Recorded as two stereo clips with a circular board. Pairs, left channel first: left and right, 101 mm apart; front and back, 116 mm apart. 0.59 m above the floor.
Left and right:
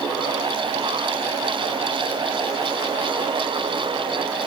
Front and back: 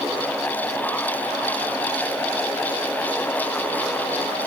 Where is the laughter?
I don't hear laughter.